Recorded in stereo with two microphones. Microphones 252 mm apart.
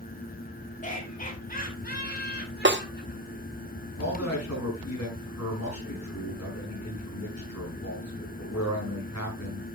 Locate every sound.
0.8 s laughter: 30° left (ahead or behind), 4.5 m; by 3.5 s 45° left (ahead or behind), 5.5 m
2.6 s a snare drum: 45° right (ahead or behind), 0.9 m
4.0 s a man speaking: 70° left (ahead or behind), 7 m